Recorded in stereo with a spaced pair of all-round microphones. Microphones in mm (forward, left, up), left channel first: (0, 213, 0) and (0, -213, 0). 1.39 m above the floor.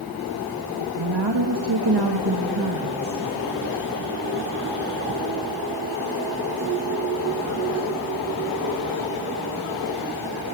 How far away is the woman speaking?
About 2 m.